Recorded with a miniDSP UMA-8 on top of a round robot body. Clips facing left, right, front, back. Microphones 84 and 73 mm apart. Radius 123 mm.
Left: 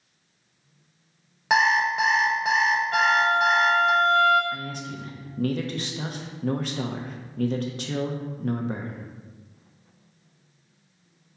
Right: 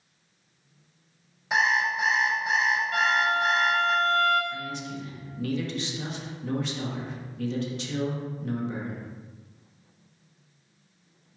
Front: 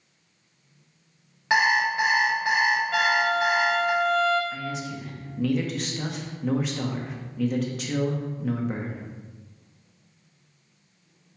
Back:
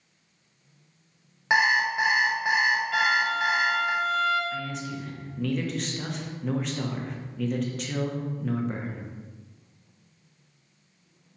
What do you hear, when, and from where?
1.5 s an alarm clock: 105° left, 0.8 m
2.9 s a violin: 50° left, 1.0 m
4.5 s a man speaking: 85° left, 0.9 m